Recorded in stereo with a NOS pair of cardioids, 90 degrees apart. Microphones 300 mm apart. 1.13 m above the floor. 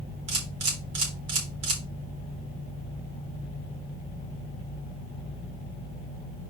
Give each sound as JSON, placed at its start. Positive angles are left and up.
{"t": 0.3, "sound": "a camera shutter", "azimuth_deg": -50, "distance_m": 3.5}